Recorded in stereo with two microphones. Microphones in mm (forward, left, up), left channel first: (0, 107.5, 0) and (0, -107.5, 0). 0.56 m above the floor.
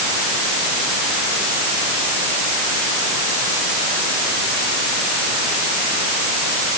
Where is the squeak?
I don't hear a squeak.